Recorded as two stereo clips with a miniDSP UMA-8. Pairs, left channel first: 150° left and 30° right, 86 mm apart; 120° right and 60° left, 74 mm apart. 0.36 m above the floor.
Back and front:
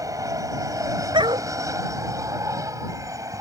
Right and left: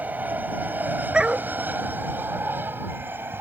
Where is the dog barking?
15° right.